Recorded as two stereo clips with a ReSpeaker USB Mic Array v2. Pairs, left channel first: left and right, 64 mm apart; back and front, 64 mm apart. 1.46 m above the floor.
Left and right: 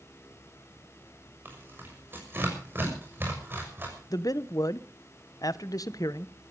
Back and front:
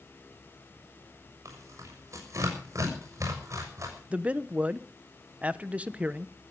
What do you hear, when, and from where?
1.4 s tearing paper: 35° right, 6.5 m
4.1 s a man speaking: 70° left, 0.8 m